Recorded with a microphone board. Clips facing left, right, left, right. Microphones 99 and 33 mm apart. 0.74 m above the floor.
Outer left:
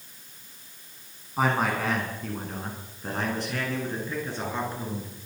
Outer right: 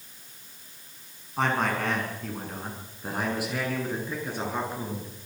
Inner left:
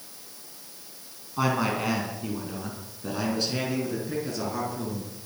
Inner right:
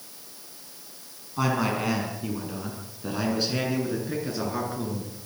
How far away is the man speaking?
About 6.5 m.